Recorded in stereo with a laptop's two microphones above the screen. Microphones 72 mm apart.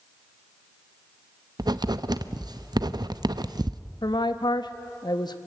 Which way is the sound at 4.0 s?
75° left (ahead or behind).